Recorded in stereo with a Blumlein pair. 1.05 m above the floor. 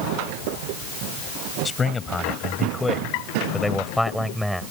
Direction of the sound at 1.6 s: 15° left.